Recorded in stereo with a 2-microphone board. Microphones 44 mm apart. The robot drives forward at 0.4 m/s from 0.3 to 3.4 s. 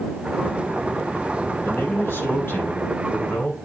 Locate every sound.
1.6 s a man speaking: 80° left, 4 m; by 3.5 s 70° left (ahead or behind), 4.5 m